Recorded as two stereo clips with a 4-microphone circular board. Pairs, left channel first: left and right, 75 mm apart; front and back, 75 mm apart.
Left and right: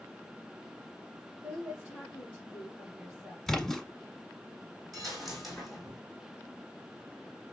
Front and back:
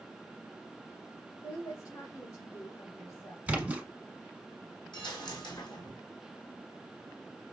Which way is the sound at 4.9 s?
Straight ahead.